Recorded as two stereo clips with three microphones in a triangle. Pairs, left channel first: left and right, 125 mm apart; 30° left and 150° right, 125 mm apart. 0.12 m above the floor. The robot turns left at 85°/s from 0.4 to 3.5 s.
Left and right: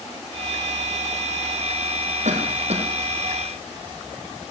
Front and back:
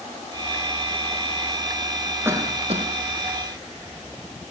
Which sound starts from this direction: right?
A cough, at 2.2 s.